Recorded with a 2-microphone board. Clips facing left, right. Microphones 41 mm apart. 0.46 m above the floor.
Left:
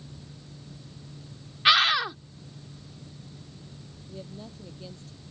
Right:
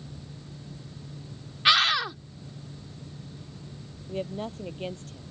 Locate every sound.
1.6 s a scream: 5° left (ahead or behind)
4.1 s a woman speaking: 55° right (ahead or behind)